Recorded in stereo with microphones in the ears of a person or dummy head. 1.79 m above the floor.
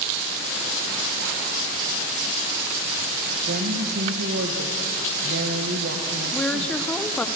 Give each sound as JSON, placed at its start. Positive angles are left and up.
{"t": 3.5, "sound": "a woman speaking", "side_deg": -55, "distance_m": 1.8}
{"t": 6.3, "sound": "a woman speaking", "side_deg": 10, "distance_m": 1.1}